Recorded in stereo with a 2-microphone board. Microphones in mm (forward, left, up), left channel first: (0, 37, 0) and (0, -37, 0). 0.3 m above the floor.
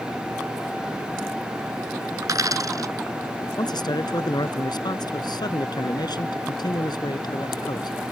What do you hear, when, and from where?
2.2 s a dropped coin: 55° right (ahead or behind)
3.6 s a man speaking: 65° left (ahead or behind)